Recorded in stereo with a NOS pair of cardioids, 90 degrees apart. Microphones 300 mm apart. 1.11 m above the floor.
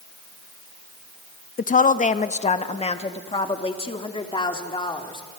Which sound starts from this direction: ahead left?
A woman speaking, at 1.6 s.